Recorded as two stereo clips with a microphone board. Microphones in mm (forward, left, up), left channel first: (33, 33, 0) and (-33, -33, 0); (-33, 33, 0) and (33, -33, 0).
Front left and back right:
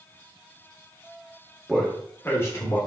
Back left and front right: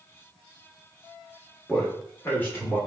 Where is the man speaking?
140° left, 0.9 m; by 2.8 s 75° left, 1.2 m.